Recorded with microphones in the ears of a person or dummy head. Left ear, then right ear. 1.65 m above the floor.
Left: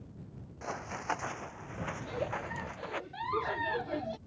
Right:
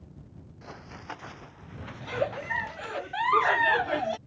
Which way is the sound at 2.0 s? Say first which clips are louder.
Right 8 dB; 30° right (ahead or behind).